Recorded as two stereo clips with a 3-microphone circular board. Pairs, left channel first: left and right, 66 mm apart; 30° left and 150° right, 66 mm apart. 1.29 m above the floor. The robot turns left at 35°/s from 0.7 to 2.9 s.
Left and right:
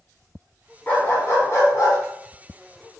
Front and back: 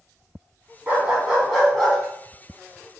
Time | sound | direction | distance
0.9 | a dog barking | 155° left | 1.4 m